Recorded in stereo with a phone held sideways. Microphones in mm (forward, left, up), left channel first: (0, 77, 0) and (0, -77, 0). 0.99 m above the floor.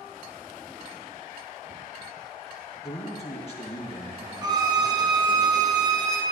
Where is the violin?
25° right (ahead or behind), 0.7 m.